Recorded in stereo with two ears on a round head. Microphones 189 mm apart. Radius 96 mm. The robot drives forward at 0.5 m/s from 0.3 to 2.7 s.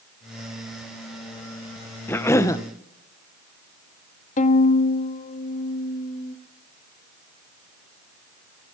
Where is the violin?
40° left (ahead or behind), 1.0 m.